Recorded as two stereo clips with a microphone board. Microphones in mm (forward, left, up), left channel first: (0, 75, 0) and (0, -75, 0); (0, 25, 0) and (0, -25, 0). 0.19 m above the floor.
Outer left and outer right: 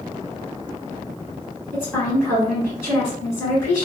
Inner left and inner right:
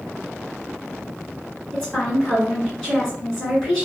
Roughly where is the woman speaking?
Centre.